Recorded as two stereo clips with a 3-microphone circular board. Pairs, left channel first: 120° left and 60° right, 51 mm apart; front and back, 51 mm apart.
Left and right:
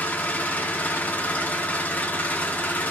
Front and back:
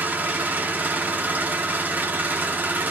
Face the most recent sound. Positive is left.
turn(degrees=155)